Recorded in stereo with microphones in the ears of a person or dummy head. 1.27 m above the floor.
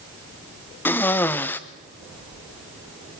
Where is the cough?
10° left (ahead or behind), 0.8 m.